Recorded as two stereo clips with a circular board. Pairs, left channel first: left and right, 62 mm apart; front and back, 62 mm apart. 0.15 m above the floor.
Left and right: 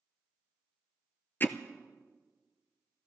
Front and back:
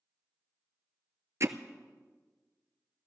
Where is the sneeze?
No sneeze in this recording.